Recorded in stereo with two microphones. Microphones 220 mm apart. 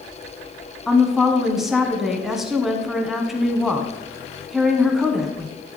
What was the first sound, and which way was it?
A woman speaking, centre (ahead or behind).